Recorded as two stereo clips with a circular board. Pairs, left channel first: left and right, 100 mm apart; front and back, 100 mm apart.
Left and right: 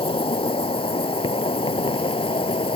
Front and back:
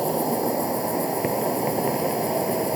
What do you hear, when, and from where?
0.0 s an insect: 90° left